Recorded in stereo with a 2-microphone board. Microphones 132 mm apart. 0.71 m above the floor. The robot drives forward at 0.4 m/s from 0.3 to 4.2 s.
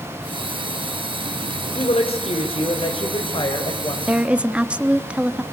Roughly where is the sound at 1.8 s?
Left.